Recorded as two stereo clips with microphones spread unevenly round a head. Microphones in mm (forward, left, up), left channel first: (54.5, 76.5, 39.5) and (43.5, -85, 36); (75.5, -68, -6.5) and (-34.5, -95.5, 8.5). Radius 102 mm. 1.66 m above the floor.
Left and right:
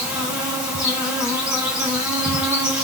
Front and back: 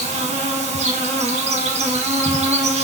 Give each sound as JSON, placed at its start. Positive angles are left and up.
{"t": 0.0, "sound": "an insect", "azimuth_deg": -175, "distance_m": 1.2}